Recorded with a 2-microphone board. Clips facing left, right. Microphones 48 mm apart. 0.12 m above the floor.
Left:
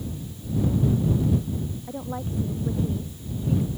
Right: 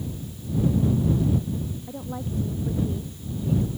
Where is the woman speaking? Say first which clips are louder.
Left 1 dB; 15° left (ahead or behind); by 3.7 s 5° left (ahead or behind).